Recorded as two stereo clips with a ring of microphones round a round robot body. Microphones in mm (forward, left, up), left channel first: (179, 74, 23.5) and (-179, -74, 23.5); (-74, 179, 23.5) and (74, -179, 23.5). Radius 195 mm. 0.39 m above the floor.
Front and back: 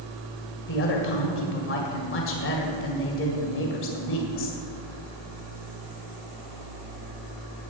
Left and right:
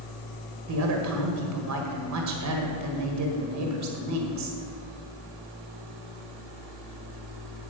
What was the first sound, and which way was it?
A woman speaking, 30° right.